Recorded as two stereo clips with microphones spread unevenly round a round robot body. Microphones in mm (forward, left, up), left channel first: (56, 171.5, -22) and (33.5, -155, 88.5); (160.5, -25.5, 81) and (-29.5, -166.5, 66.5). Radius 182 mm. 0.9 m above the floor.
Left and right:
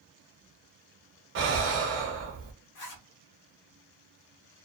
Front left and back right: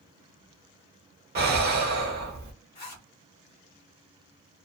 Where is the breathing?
160° right, 0.7 m.